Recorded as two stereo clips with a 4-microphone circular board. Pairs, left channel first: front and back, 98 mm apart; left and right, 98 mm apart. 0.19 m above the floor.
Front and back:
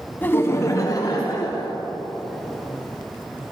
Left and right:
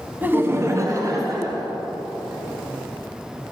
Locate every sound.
0.2 s laughter: 45° right, 1.1 m; by 1.7 s 40° right, 2.5 m